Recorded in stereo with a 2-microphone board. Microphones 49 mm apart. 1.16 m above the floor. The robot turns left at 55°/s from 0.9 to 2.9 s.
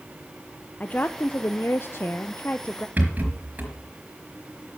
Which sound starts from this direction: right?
A rattle, at 3.0 s.